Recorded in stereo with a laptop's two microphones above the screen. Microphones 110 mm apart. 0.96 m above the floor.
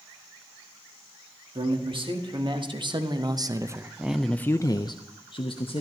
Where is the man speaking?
50° right (ahead or behind), 1.9 m; by 5.8 s 55° left (ahead or behind), 1.2 m.